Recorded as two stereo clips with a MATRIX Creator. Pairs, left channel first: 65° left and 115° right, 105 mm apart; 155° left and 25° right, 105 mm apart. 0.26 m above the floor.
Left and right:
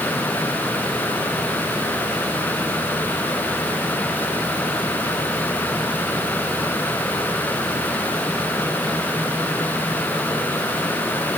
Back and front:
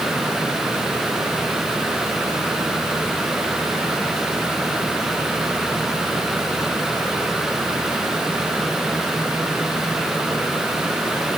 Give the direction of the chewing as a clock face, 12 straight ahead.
I don't hear chewing.